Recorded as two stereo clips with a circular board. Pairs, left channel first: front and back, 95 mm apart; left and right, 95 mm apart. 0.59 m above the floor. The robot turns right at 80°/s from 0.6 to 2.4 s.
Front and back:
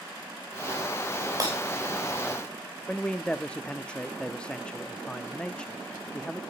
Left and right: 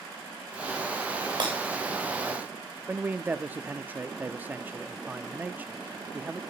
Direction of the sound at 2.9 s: 60° right.